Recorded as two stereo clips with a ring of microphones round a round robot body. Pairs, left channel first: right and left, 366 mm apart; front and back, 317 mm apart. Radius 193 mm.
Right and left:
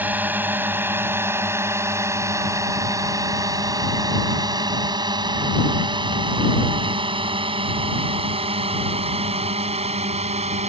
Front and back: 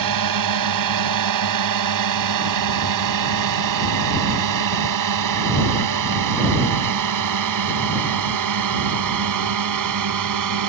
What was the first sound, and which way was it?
A drone, 175° left.